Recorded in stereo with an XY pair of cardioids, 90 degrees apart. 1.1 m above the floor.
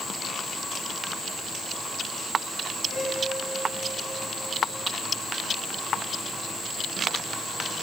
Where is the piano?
65° left, 9 m.